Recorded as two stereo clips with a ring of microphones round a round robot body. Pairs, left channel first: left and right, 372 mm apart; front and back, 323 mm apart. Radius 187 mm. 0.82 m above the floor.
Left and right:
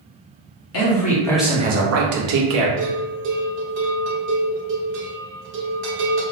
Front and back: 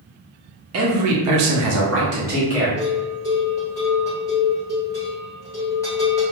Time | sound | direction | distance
0.7 | a man speaking | 140° left | 0.7 m
2.8 | a bell | 75° right | 1.0 m